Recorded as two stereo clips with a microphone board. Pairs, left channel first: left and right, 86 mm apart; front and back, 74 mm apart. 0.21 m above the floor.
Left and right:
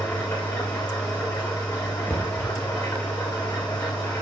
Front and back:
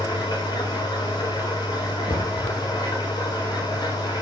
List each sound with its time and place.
0.0 s an engine running: 30° left, 6 m
2.1 s knocking: 15° left, 2 m